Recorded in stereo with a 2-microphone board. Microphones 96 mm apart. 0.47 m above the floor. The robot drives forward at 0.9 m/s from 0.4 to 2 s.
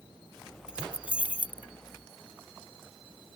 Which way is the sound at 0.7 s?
10° right (ahead or behind).